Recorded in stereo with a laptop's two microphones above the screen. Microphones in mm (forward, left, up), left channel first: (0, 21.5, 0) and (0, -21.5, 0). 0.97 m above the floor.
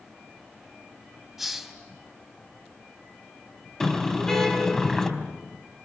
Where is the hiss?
5° right (ahead or behind), 4 m.